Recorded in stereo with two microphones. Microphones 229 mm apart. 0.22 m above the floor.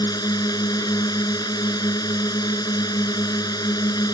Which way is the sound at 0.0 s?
15° left (ahead or behind).